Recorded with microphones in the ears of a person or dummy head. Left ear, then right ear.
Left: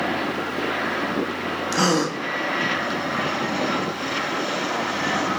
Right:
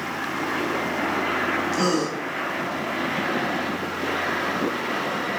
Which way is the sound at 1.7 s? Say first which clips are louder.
Left 2 dB; 60° left (ahead or behind).